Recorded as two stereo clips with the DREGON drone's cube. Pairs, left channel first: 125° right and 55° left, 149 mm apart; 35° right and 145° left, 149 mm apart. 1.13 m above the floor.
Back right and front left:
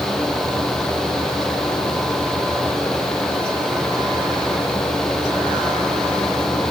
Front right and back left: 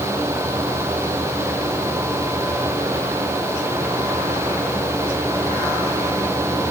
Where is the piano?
I don't hear a piano.